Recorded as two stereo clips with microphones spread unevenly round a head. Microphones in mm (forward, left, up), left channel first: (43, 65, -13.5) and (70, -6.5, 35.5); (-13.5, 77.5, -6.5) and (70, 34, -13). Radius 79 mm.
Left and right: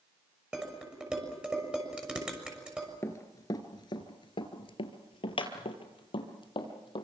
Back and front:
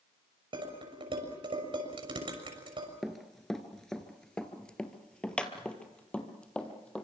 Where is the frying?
I don't hear frying.